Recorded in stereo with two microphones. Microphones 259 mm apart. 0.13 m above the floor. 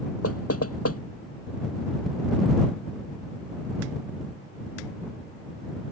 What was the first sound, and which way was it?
Knocking, 65° left (ahead or behind).